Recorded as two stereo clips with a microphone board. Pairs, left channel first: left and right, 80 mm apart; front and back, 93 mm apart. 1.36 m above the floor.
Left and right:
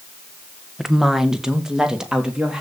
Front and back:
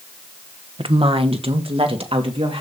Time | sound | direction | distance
0.8 | a woman speaking | 175° right | 1.2 m